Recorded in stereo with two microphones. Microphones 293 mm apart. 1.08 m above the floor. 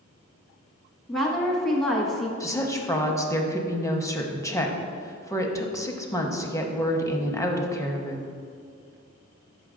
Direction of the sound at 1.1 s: Centre (ahead or behind).